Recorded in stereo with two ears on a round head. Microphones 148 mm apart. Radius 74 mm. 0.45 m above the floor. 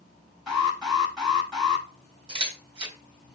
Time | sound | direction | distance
0.5 | an alarm | centre (ahead or behind) | 4.5 m
2.3 | a camera shutter | 30° right (ahead or behind) | 3.5 m